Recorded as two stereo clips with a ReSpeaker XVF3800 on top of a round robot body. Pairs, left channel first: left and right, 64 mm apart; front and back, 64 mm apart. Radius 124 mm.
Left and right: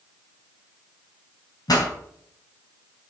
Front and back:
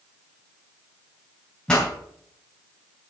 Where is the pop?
75° left, 3.5 m.